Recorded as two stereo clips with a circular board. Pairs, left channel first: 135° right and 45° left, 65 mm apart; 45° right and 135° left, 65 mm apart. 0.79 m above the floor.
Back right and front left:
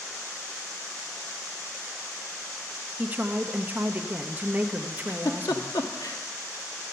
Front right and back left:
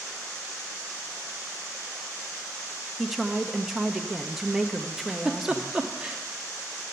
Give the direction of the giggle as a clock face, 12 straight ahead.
5 o'clock.